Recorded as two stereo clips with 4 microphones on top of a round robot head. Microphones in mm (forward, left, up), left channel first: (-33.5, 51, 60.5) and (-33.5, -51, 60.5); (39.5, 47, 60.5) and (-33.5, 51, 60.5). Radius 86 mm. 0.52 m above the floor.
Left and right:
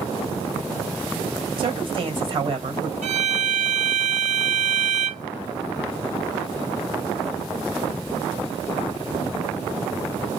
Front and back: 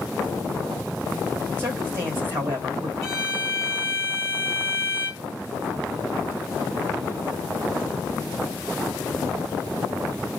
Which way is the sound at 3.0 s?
90° right.